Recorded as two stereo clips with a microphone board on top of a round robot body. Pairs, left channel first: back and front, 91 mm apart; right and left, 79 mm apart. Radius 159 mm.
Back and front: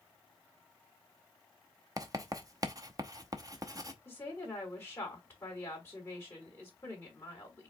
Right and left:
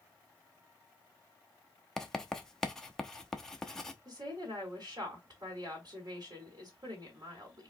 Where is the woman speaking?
110° left, 3 m.